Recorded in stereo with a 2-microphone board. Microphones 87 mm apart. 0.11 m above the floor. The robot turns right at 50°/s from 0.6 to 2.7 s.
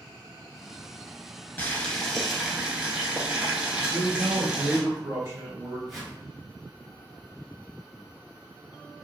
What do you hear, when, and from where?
1.6 s boiling: 145° left, 0.7 m; by 4.8 s 160° right, 0.7 m
3.8 s a man speaking: 35° right (ahead or behind), 2.0 m
5.9 s a whoosh: centre (ahead or behind), 1.9 m